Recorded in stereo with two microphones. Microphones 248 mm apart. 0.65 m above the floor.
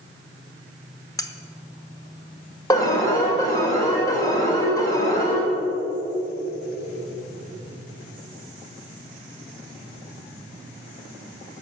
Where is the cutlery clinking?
15° left (ahead or behind), 0.9 m.